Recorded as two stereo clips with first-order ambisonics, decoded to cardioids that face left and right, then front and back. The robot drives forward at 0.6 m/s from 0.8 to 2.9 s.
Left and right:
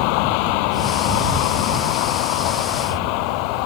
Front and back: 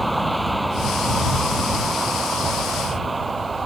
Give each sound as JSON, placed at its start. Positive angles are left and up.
{"t": 0.0, "sound": "a vehicle", "azimuth_deg": 95}